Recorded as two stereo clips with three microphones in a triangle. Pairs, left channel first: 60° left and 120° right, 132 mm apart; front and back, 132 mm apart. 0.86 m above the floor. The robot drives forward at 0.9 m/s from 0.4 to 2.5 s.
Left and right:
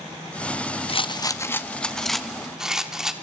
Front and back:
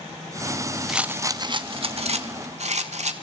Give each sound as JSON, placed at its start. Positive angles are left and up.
{"t": 0.9, "sound": "a rattle", "azimuth_deg": 95, "distance_m": 0.8}